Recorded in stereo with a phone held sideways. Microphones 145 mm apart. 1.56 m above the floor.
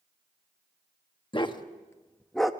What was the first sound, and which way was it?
A dog barking, 35° left (ahead or behind).